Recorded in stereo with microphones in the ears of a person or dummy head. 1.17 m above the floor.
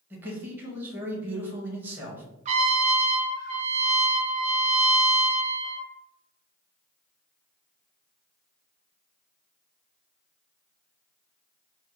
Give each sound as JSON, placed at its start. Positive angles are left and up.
{"t": 0.1, "sound": "a man speaking", "side_deg": -10, "distance_m": 1.2}
{"t": 2.5, "sound": "a trumpet", "side_deg": -35, "distance_m": 0.8}